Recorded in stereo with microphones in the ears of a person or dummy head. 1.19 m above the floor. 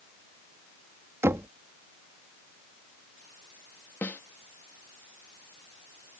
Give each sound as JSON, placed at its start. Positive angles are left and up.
{"t": 1.2, "sound": "knocking", "side_deg": -15}
{"t": 4.0, "sound": "a snare drum", "side_deg": 10}